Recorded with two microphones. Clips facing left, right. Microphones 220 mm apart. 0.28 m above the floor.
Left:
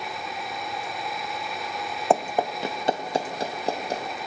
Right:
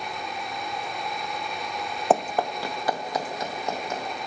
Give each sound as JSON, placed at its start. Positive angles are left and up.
{"t": 2.1, "sound": "running footsteps", "side_deg": 0, "distance_m": 0.8}